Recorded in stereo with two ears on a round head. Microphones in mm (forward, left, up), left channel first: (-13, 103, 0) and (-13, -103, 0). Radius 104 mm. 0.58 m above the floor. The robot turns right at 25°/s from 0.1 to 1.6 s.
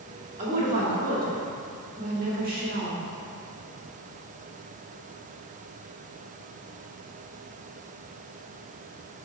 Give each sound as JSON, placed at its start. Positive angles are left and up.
{"t": 0.4, "sound": "a woman speaking", "azimuth_deg": -135, "distance_m": 1.4}